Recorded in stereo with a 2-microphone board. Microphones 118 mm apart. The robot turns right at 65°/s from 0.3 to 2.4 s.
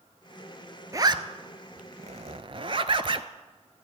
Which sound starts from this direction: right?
A zipper, at 0.9 s.